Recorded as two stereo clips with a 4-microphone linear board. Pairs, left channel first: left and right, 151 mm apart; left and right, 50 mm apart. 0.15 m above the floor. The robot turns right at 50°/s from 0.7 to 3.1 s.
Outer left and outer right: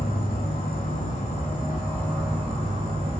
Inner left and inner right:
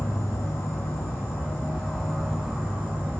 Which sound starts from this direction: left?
An insect, at 0.0 s.